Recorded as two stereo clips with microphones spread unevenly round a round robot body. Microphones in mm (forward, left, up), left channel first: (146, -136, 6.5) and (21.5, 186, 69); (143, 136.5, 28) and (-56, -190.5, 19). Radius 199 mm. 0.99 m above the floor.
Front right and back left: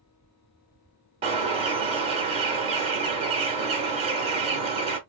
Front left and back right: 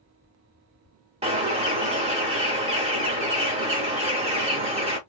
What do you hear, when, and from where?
1.2 s a bird: 170° left, 0.8 m